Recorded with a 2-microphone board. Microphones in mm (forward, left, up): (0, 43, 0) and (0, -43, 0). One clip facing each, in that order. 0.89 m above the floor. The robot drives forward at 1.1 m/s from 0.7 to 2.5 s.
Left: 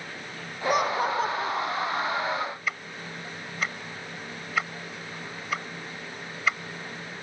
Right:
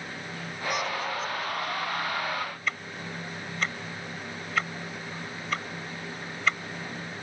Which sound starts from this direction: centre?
Ticking, at 2.7 s.